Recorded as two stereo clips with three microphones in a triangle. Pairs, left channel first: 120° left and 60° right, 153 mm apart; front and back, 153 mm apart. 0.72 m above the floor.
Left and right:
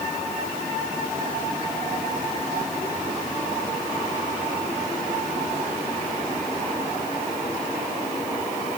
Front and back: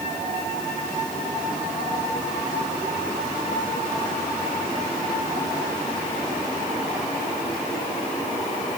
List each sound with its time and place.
Only background noise.